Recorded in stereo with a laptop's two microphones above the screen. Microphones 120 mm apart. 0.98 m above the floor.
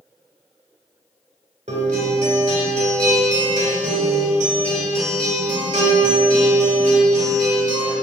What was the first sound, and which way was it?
A guitar, 80° right.